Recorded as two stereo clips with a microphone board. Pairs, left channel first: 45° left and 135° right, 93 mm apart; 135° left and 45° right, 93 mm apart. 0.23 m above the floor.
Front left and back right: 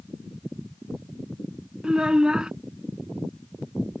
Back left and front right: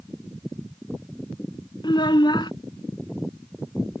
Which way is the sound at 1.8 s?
145° left.